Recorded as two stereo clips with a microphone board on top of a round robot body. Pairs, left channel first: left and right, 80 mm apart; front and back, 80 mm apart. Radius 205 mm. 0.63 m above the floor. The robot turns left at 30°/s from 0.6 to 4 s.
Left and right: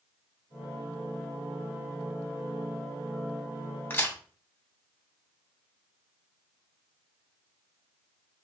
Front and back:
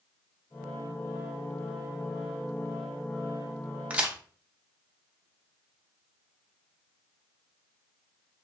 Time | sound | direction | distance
3.9 | a crack | 125° left | 1.2 m